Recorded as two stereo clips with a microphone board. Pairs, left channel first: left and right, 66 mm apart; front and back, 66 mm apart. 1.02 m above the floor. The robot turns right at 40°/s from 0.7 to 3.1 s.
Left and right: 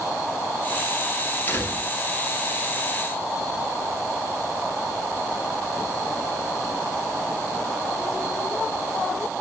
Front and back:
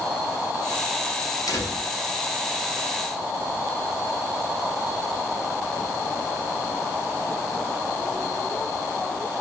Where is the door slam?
25° left, 4 m; by 1.9 s 45° left, 4 m.